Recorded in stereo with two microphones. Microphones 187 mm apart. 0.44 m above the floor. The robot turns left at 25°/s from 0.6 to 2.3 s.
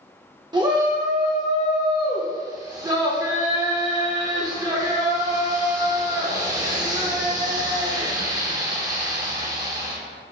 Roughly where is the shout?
Right.